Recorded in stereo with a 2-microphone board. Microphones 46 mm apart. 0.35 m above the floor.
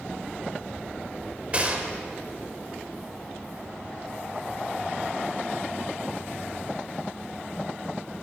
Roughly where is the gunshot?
Right.